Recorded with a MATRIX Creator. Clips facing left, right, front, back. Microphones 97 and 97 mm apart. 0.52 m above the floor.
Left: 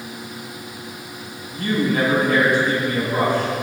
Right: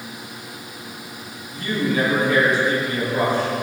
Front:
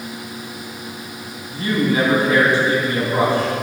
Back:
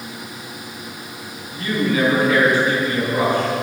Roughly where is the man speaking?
Ahead left.